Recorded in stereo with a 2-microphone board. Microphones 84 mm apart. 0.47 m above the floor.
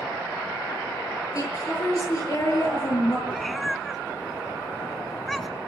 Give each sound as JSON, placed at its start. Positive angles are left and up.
{"t": 1.4, "sound": "a woman speaking", "side_deg": 40, "distance_m": 7.5}
{"t": 3.3, "sound": "a cat meowing", "side_deg": 0, "distance_m": 0.8}